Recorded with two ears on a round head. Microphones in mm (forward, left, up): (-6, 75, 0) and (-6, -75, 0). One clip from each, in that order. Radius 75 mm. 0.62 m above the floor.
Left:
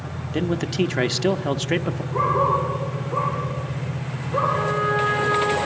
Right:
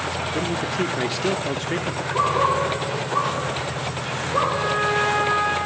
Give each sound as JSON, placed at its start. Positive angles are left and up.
{"t": 0.3, "sound": "a man speaking", "side_deg": 20, "distance_m": 0.6}
{"t": 2.1, "sound": "a dog barking", "side_deg": -35, "distance_m": 7.5}
{"t": 4.5, "sound": "a trumpet", "side_deg": -60, "distance_m": 4.5}